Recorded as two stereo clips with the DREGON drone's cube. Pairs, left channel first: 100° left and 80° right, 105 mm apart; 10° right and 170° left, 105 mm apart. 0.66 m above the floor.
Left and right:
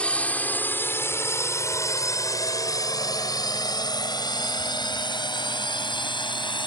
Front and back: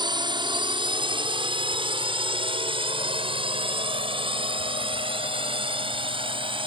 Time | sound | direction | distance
0.0 | a drone | 175° left | ?